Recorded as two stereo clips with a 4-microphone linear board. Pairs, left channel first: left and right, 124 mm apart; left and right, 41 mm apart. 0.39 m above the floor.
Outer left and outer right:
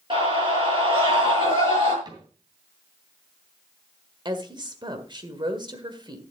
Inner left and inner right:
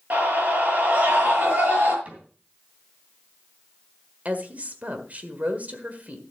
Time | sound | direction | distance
0.1 | a scream | 45° right (ahead or behind) | 7 m
2.0 | a cupboard door | 35° right (ahead or behind) | 3 m
4.2 | a woman speaking | 40° right (ahead or behind) | 1.6 m